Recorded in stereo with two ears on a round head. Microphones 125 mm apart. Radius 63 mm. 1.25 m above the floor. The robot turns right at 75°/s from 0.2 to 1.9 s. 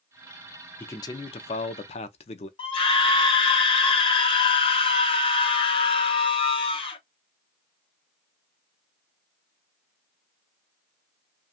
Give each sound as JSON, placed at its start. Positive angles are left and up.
{"t": 0.8, "sound": "a man speaking", "azimuth_deg": 20, "distance_m": 0.6}
{"t": 2.6, "sound": "a scream", "side_deg": 40, "distance_m": 0.8}